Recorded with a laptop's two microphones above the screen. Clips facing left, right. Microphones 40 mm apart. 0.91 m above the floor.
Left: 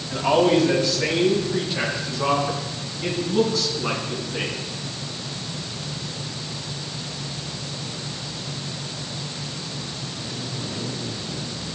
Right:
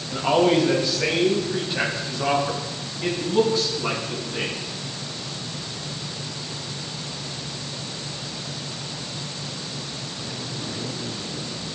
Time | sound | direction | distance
0.1 | a man speaking | 10° right (ahead or behind) | 4.5 m